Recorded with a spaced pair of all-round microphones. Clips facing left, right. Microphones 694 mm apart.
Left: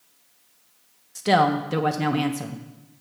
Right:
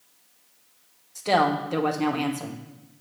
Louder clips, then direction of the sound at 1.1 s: Left 3 dB; 45° left (ahead or behind).